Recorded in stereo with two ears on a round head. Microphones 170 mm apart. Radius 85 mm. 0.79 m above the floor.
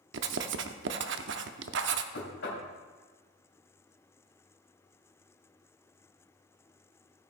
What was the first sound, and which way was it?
Writing, 70° right (ahead or behind).